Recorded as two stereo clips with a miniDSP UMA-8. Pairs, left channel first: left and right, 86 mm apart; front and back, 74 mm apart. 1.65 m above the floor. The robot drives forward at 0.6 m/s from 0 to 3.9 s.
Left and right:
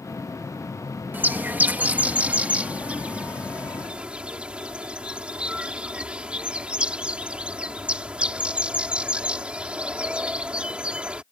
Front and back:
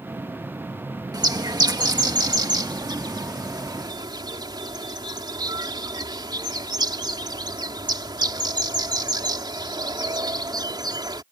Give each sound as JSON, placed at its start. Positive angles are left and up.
{"t": 1.1, "sound": "a bird", "azimuth_deg": -160}